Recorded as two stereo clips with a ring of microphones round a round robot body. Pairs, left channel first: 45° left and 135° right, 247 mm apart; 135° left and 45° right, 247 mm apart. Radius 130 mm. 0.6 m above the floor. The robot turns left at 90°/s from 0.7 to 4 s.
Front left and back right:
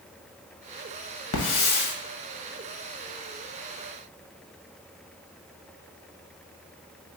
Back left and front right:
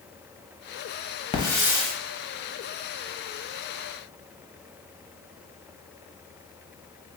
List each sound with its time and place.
1.3 s a hiss: 70° left, 1.0 m; by 1.9 s 15° left, 1.0 m